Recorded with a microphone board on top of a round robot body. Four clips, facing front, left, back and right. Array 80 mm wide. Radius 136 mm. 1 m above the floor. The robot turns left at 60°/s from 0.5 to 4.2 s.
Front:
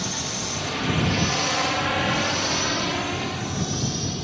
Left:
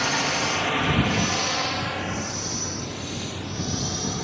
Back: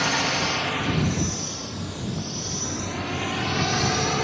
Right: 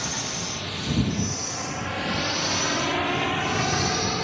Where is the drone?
140° left; by 4.2 s 160° right.